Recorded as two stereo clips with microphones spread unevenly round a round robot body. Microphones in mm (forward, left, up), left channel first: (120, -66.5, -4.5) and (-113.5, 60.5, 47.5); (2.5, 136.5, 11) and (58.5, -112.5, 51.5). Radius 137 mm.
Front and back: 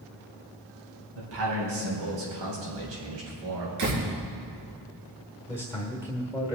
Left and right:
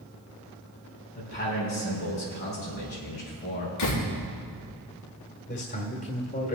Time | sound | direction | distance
1.1 | a man speaking | 160° left | 3.5 m
3.8 | a door slam | 130° left | 4.5 m
5.5 | a man speaking | 65° left | 1.4 m